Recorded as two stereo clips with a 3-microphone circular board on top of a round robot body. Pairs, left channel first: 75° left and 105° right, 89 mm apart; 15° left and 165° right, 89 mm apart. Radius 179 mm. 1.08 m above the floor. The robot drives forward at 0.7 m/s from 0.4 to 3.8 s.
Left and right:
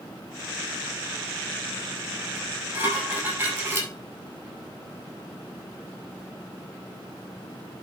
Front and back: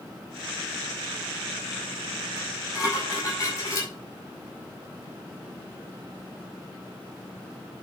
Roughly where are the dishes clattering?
Ahead right.